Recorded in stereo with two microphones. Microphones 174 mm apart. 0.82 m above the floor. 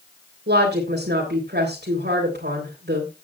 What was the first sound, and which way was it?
A woman speaking, 75° right (ahead or behind).